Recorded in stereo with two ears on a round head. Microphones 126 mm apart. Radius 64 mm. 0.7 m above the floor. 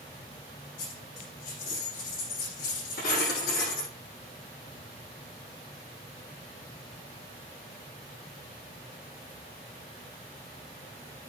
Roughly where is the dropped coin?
Left.